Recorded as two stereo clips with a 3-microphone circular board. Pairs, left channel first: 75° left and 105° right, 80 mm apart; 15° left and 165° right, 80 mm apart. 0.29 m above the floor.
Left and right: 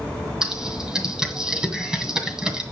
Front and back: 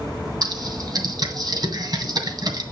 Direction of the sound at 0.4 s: 175° left.